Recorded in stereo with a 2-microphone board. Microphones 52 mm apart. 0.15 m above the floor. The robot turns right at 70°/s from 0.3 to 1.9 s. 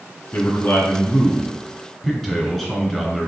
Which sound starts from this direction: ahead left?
A man speaking, at 0.3 s.